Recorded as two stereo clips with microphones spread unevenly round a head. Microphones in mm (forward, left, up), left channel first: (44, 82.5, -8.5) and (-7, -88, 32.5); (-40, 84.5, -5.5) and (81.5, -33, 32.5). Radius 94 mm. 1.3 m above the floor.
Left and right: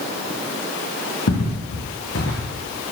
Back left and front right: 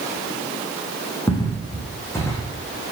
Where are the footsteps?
60° left, 5 m; by 2.5 s 55° left, 3.5 m.